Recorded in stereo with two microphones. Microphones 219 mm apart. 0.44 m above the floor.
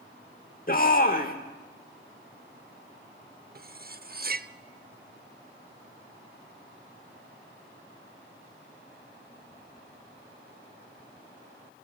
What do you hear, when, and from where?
0.7 s a shout: 40° left (ahead or behind), 1.1 m
3.5 s cutlery clinking: 45° right (ahead or behind), 0.6 m